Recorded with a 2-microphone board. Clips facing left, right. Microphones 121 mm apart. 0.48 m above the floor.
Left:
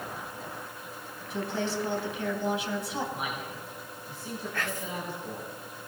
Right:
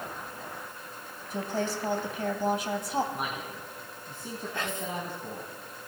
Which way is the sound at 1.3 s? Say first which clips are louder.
Even; 45° right (ahead or behind).